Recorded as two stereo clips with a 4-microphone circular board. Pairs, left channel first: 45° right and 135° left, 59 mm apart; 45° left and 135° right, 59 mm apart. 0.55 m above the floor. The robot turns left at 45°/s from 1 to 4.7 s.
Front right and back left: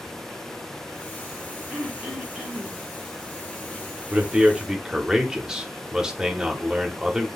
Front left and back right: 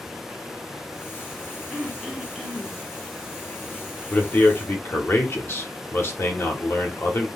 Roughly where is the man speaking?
Left.